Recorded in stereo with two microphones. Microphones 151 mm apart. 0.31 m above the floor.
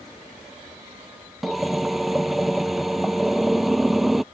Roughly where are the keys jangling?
No keys jangling in this recording.